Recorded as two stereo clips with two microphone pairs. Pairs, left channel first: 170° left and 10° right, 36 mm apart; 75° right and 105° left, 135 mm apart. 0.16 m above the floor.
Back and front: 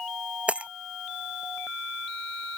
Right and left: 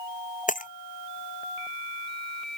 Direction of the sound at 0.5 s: 65° right.